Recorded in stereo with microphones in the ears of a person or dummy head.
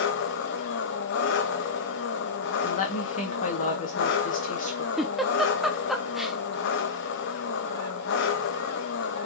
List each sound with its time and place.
0.0 s an engine running: 65° left (ahead or behind), 1.4 m
2.6 s a woman speaking: 45° left (ahead or behind), 2 m
5.0 s a giggle: centre (ahead or behind), 0.9 m